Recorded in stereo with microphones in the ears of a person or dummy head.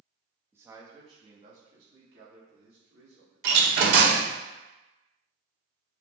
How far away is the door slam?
About 0.7 m.